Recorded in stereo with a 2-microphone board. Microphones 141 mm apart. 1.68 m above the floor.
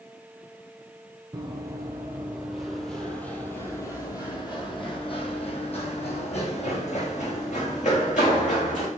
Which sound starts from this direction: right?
Running footsteps, at 1.3 s.